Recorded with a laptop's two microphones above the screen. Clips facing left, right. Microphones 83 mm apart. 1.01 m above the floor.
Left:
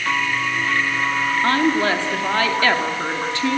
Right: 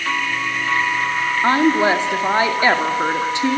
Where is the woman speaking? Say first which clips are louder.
Right 4 dB; 20° right (ahead or behind), 2 m.